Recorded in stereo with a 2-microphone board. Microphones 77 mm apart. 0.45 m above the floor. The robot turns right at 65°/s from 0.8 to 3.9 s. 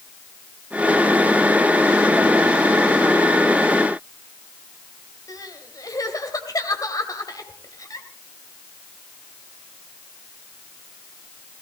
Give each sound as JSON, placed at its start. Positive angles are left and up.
{"t": 5.3, "sound": "crying", "side_deg": 50, "distance_m": 2.5}